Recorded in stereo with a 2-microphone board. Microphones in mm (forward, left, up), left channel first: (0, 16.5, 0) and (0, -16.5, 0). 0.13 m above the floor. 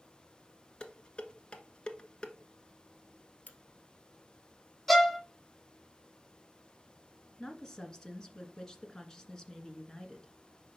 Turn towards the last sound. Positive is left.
turn(degrees=20)  # may be behind; listen again after turning